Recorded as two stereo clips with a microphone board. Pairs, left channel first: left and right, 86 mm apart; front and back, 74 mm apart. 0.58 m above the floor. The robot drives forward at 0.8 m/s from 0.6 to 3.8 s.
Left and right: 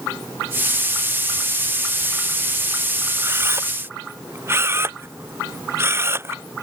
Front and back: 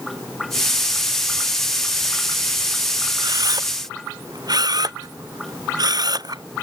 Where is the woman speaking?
I don't hear a woman speaking.